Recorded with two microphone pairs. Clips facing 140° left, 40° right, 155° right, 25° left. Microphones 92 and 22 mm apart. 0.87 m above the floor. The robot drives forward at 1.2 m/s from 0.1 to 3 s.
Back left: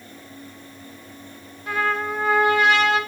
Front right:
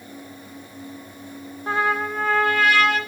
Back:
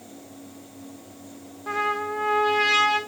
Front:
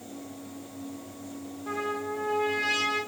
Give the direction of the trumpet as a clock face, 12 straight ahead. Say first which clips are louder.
Front right 1 dB, back 6 dB; 3 o'clock.